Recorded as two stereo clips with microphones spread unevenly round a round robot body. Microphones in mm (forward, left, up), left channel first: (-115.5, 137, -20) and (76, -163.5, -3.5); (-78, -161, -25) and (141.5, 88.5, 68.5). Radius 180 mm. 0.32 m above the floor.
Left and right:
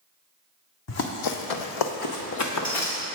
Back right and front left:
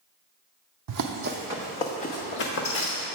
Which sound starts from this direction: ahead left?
Running footsteps, at 0.9 s.